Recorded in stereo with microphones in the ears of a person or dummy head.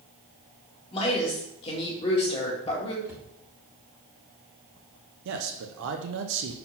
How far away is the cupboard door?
About 1.3 m.